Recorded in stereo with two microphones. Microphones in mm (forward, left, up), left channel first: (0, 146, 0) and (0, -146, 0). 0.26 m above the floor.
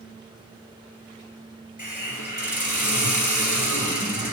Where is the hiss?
80° left, 3 m.